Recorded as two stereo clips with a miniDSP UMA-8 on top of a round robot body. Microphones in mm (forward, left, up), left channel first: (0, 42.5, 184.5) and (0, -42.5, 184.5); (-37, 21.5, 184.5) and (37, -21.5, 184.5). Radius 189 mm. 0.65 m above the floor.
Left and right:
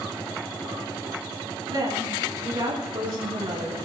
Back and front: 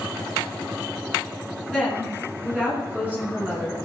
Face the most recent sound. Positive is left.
turn(degrees=-95)